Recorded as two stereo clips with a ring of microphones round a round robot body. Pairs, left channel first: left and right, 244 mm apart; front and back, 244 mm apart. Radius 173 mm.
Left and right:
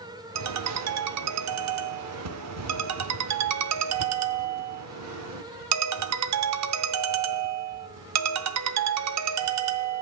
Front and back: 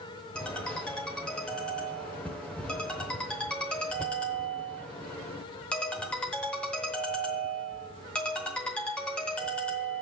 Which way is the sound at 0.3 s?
85° right.